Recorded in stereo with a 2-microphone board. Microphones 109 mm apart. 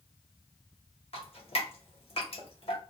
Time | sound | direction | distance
1.1 | dripping | 60° left (ahead or behind) | 0.9 m